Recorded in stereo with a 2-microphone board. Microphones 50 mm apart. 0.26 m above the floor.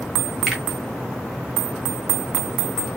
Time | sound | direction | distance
0.5 | a finger snap | 5° right (ahead or behind) | 1.3 m